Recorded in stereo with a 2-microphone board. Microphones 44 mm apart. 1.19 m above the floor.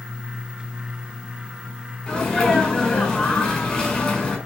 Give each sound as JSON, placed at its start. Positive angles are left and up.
{"t": 2.1, "sound": "a sneeze", "side_deg": 15, "distance_m": 5.5}